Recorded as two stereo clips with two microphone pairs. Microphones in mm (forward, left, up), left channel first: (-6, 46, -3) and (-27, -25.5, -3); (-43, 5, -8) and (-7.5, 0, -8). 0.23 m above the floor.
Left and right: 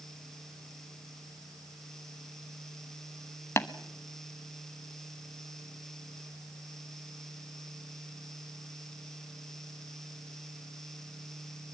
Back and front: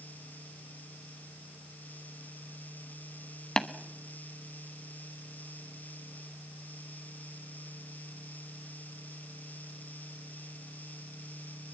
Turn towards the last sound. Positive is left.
turn(degrees=110)